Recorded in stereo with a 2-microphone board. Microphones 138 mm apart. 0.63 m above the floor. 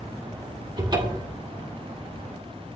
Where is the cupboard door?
35° right (ahead or behind), 1.7 m.